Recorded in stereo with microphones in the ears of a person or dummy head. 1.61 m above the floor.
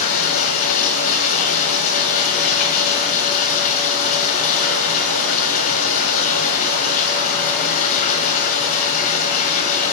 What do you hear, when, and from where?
0.0 s running water: 40° left (ahead or behind), 1.9 m